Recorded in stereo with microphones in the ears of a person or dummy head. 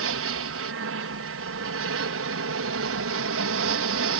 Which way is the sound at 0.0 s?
60° right (ahead or behind).